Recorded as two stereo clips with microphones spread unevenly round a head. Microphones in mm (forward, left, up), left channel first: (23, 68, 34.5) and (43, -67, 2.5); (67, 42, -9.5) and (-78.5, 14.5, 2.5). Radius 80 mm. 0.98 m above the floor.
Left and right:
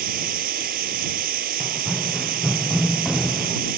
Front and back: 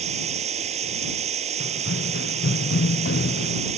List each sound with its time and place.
0.0 s a machine running: 115° right
1.6 s running footsteps: 10° left; by 3.6 s 15° left